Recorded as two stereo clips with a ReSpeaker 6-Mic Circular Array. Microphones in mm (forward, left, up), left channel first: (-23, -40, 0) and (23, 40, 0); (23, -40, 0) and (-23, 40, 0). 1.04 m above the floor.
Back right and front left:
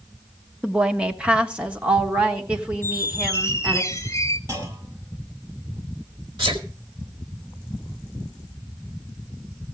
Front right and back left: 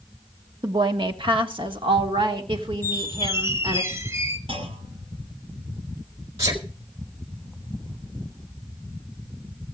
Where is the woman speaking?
140° left, 0.9 m; by 3.8 s 135° left, 3 m.